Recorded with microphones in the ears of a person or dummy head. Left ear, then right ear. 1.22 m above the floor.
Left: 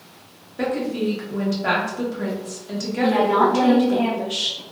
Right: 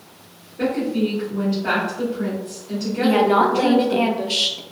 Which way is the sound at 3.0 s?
35° right (ahead or behind).